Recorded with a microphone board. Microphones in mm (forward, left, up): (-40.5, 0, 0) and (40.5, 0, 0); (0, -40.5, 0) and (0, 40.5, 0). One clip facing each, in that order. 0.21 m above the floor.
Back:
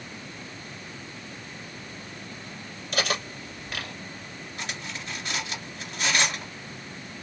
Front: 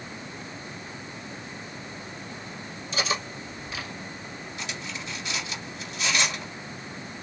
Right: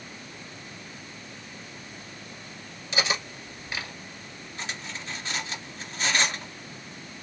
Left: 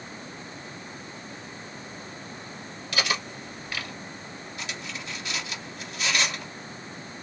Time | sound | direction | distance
2.9 | cutlery clinking | 155° right | 2.0 m
4.6 | cutlery clinking | 140° right | 2 m